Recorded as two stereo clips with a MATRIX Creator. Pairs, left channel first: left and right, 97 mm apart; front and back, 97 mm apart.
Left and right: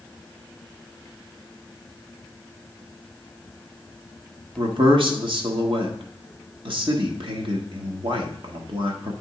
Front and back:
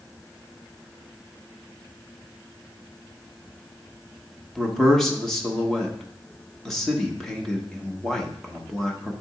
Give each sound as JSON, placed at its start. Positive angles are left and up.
{"t": 4.6, "sound": "a man speaking", "azimuth_deg": -85, "distance_m": 1.2}